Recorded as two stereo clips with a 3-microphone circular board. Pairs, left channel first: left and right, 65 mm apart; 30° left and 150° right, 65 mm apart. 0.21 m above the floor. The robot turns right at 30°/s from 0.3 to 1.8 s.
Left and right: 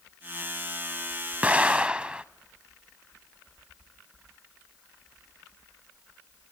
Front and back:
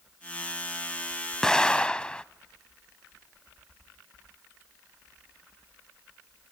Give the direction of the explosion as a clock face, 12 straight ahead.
1 o'clock.